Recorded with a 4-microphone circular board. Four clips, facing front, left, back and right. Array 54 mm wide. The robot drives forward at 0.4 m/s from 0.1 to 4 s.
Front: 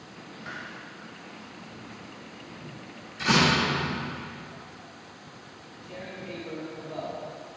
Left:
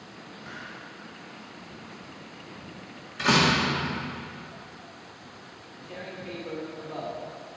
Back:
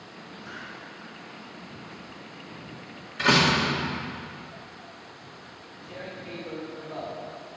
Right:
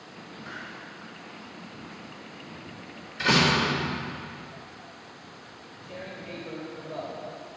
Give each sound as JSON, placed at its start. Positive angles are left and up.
{"t": 0.4, "sound": "a hiss", "azimuth_deg": 5, "distance_m": 1.8}
{"t": 3.2, "sound": "a door slam", "azimuth_deg": 155, "distance_m": 2.0}
{"t": 5.5, "sound": "tearing paper", "azimuth_deg": 110, "distance_m": 1.9}